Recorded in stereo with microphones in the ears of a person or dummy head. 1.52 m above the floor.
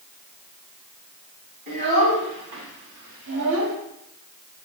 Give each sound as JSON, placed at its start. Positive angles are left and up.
{"t": 1.7, "sound": "a child speaking", "side_deg": -60, "distance_m": 2.5}